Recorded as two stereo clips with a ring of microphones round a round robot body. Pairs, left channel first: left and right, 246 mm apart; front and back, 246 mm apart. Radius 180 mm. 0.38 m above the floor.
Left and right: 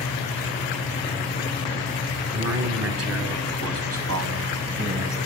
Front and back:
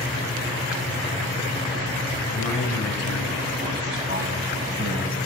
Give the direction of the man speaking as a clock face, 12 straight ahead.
2 o'clock.